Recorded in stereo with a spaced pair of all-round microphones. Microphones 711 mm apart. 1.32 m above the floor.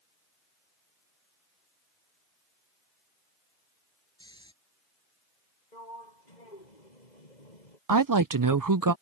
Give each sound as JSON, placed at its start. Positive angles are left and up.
{"t": 4.2, "sound": "snoring", "side_deg": 5}
{"t": 5.7, "sound": "a sliding door", "side_deg": 80}
{"t": 7.9, "sound": "a woman speaking", "side_deg": -30}